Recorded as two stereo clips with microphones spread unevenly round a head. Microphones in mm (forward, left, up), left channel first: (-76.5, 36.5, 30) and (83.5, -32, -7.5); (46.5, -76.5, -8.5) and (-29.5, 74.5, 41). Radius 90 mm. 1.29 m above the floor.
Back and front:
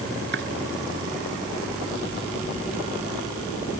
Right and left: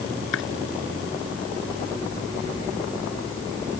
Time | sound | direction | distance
0.3 | chopping | 55° right | ?